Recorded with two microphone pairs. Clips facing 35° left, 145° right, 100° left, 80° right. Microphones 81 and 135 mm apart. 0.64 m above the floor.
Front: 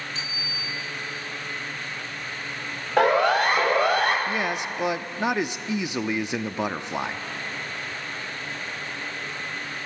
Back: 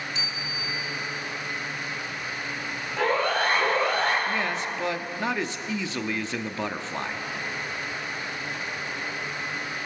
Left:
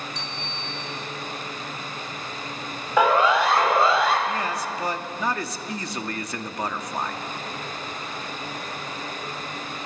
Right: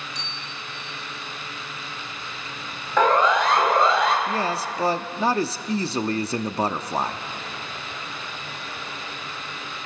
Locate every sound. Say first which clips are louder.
0.1 s a bicycle bell: back 1 dB, left 3 dB; 80° left, 5.5 m
3.0 s a siren: front 5 dB, even; 20° left, 4.5 m; by 4.2 s 10° left, 4 m
4.3 s a man speaking: front 1 dB, right 2 dB; 30° right, 0.8 m